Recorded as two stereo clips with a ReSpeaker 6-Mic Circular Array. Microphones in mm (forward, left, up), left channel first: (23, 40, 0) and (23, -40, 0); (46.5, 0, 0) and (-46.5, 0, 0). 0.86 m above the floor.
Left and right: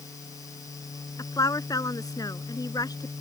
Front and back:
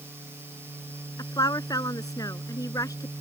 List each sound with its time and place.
1.2 s a woman speaking: 45° left; by 3.1 s 50° left